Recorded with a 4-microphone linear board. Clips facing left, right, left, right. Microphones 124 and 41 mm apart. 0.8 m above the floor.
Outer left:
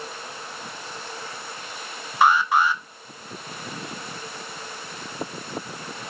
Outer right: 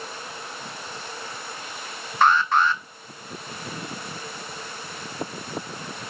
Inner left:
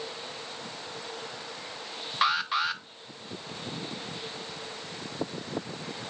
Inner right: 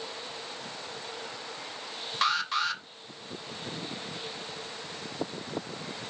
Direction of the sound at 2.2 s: 10° left (ahead or behind).